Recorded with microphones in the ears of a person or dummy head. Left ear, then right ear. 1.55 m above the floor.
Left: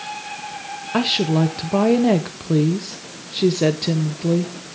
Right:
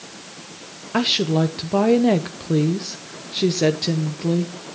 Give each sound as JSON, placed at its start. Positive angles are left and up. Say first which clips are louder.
{"t": 0.9, "sound": "a woman speaking", "louder": "even", "side_deg": -5, "distance_m": 0.6}